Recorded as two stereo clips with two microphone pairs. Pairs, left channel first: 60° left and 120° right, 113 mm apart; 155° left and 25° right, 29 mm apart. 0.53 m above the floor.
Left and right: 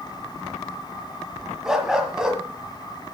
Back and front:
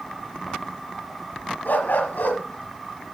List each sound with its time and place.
1.6 s a dog barking: 155° left, 1.5 m